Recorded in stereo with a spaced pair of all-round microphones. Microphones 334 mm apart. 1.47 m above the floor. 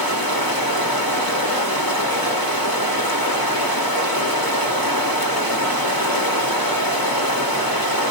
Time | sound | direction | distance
0.0 | running water | 75° left (ahead or behind) | 3.5 m